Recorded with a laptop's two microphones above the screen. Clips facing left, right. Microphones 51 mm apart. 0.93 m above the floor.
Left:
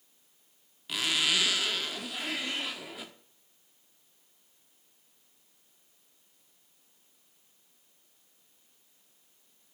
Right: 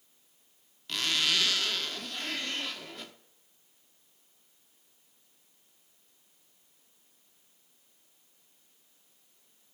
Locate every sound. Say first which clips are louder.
0.9 s a zipper: left 1 dB; 10° left (ahead or behind), 0.7 m